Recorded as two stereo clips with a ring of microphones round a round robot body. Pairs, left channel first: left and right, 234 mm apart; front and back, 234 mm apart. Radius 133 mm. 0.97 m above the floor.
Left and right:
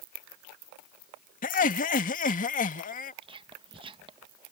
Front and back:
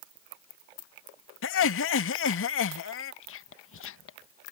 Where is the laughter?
35° left.